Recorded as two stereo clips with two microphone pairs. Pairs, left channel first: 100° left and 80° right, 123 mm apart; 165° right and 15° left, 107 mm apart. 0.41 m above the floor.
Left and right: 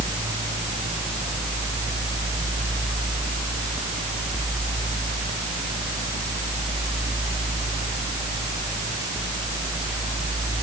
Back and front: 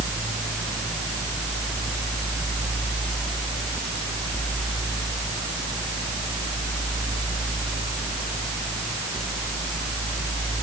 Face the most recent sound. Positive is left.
No sound to turn to.